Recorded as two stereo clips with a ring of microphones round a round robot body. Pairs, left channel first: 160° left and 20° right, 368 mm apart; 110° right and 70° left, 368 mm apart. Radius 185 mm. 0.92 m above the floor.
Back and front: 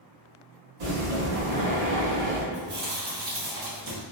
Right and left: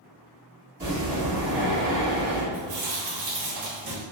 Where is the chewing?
25° left, 1.5 m.